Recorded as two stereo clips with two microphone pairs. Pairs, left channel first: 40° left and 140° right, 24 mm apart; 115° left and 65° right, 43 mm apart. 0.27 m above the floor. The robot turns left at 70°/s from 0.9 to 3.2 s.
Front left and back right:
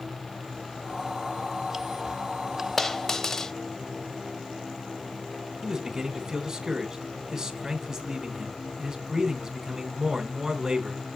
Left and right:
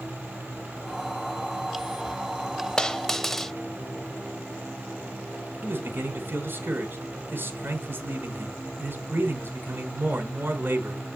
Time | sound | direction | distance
2.8 | a dropped coin | 90° left | 0.5 m
5.6 | a man speaking | 75° right | 2.5 m